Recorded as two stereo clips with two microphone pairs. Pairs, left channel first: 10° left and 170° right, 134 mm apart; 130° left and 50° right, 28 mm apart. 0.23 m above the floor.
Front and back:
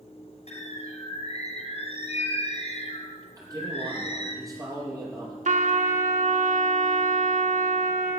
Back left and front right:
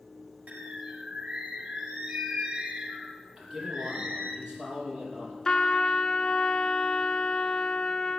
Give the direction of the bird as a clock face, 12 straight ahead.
1 o'clock.